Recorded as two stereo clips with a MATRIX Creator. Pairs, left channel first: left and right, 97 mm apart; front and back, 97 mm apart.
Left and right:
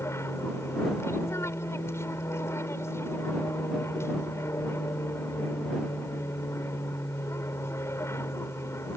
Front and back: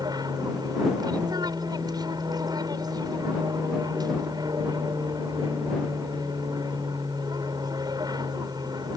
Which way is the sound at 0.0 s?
145° left.